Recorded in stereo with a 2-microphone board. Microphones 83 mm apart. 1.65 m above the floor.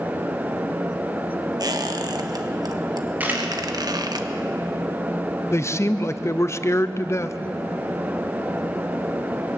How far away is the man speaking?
About 0.8 m.